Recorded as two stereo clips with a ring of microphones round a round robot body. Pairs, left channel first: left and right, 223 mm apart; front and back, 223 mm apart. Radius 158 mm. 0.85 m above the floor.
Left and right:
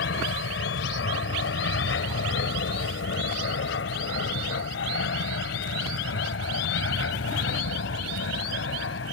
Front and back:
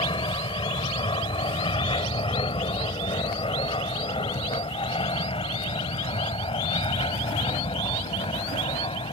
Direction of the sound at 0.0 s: 65° left.